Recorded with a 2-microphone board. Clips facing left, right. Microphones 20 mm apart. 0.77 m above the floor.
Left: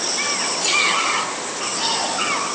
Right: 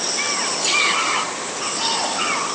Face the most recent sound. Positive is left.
No sound to turn to.